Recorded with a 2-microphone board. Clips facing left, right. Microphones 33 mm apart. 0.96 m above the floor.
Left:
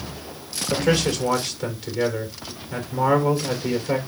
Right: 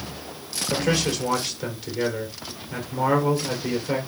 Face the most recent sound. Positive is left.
turn(degrees=-5)  # may be behind; listen again after turning